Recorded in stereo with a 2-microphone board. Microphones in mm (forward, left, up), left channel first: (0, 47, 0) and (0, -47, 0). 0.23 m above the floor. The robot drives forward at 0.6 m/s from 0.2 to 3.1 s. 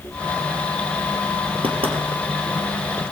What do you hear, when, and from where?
1.6 s knocking: 75° right (ahead or behind), 3.5 m